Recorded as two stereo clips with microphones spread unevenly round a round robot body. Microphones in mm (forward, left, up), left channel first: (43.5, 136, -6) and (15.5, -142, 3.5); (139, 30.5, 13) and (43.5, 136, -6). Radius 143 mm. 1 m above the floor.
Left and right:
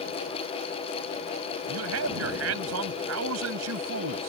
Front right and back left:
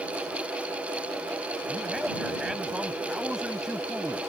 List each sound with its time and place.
1.7 s a man speaking: 140° right